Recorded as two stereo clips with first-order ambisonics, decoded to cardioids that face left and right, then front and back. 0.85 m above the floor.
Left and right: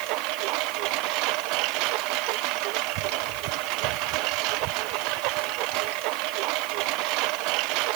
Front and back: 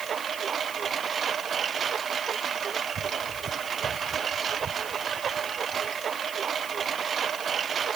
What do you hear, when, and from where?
0.0 s a lawn mower: 115° right